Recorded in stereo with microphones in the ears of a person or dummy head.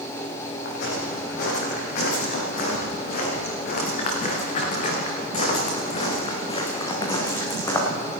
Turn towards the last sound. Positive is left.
turn(degrees=10)  # may be behind; listen again after turning